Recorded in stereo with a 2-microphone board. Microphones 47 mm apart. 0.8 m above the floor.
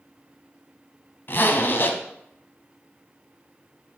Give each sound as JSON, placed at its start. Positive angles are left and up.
{"t": 1.3, "sound": "a zipper", "side_deg": 45, "distance_m": 0.9}